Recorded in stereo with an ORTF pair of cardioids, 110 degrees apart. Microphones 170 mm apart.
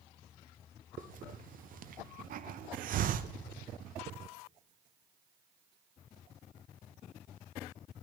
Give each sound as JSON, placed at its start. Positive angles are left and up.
{"t": 1.0, "sound": "a hiss", "azimuth_deg": -55, "distance_m": 0.8}